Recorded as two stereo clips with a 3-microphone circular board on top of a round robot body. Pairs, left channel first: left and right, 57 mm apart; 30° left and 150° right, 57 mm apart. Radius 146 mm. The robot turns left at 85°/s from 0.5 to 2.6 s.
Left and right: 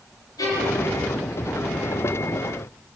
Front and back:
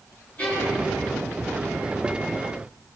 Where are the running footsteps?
I don't hear running footsteps.